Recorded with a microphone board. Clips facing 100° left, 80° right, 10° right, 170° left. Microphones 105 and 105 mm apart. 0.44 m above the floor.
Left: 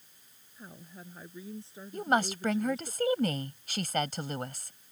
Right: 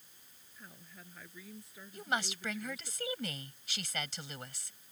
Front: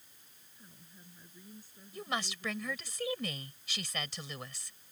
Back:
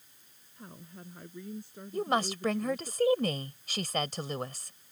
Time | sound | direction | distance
0.6 | a woman speaking | 160° left | ?
1.9 | a woman speaking | 130° left | ?